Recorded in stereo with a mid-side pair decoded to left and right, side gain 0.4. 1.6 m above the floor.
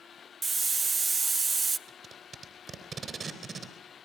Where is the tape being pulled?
50° right, 3.5 m.